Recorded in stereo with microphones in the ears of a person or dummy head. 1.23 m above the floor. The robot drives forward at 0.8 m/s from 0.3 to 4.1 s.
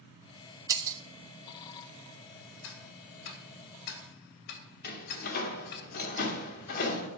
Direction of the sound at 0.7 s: 20° right (ahead or behind).